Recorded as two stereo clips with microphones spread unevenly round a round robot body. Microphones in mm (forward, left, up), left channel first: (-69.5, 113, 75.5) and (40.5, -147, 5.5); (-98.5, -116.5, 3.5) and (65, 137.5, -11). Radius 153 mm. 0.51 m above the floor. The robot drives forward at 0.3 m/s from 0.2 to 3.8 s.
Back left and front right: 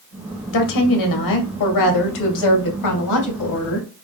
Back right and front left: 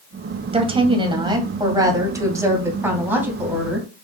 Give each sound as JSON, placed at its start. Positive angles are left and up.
{"t": 0.5, "sound": "a woman speaking", "azimuth_deg": 130, "distance_m": 2.5}